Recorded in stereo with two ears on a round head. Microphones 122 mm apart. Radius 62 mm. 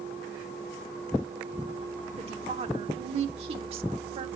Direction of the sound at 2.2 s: 45° right (ahead or behind).